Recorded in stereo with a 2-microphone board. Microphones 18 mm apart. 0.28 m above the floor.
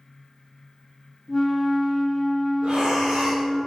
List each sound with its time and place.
1.3 s a flute: 15° left (ahead or behind), 1.5 m
2.6 s breathing: 85° right, 3.5 m